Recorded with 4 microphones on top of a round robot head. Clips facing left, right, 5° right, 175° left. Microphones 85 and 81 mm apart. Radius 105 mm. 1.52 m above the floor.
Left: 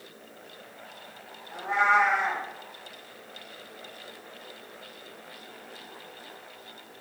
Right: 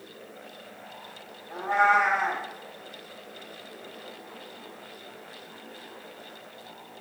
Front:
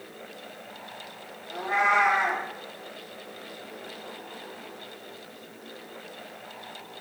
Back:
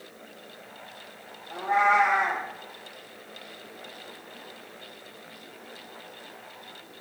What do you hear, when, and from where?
1.5 s a cat meowing: 120° right, 0.9 m